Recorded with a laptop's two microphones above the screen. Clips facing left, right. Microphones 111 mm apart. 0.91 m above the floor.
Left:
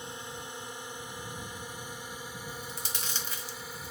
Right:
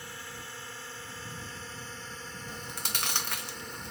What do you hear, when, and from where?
0.0 s a drone: 20° left (ahead or behind); by 3.9 s 5° left (ahead or behind)
2.5 s chewing: 65° right (ahead or behind)